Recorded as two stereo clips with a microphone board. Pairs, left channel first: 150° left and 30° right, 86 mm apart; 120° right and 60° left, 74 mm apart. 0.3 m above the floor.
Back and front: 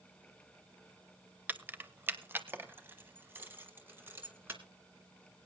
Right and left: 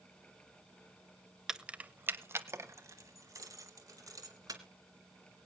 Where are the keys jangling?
10° right, 0.6 m; by 4.6 s 35° left, 2 m.